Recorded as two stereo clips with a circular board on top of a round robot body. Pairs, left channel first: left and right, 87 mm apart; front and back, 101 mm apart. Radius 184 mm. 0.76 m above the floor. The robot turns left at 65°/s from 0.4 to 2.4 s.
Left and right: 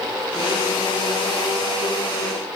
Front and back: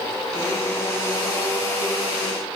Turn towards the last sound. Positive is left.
No sound to turn to.